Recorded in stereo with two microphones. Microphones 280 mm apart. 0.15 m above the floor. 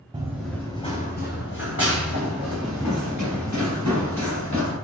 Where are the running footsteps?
15° right (ahead or behind), 0.7 m; by 4.8 s 75° left (ahead or behind), 2.5 m.